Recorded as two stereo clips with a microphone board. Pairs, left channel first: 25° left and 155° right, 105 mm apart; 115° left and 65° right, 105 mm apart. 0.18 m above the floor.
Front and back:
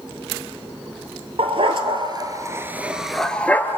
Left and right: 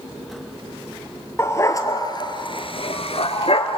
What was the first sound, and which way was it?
A dog barking, straight behind.